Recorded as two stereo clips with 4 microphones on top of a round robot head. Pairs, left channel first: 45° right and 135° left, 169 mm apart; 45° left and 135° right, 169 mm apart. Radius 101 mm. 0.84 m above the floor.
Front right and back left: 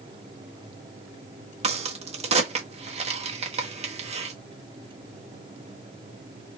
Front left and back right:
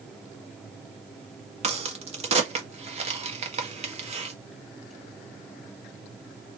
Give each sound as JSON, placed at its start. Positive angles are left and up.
{"t": 1.6, "sound": "a crack", "azimuth_deg": 180, "distance_m": 1.5}